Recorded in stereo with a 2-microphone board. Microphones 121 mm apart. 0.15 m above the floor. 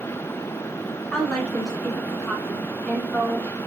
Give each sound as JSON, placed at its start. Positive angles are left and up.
{"t": 1.1, "sound": "a woman speaking", "side_deg": 5, "distance_m": 1.7}